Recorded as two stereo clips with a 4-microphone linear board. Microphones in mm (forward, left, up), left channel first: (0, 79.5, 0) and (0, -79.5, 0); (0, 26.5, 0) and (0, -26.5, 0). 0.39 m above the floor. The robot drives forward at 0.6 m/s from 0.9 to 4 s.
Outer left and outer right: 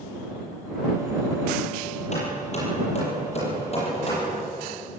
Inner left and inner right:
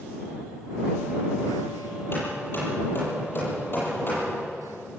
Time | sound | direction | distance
2.1 | hammering | 45° left (ahead or behind) | 9 m